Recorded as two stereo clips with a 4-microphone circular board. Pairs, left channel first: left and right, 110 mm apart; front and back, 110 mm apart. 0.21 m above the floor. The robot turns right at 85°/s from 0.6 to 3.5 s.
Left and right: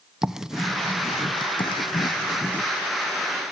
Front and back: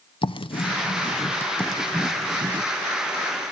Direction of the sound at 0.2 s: 5° right.